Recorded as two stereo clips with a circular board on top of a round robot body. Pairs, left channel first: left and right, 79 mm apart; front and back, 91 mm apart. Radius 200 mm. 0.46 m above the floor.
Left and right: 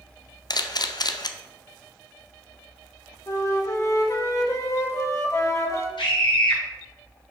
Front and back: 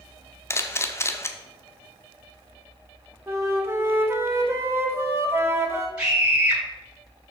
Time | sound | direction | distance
0.5 | a camera shutter | 60° left | 0.8 m
3.3 | a flute | 125° left | 1.9 m
6.0 | a scream | 100° left | 4 m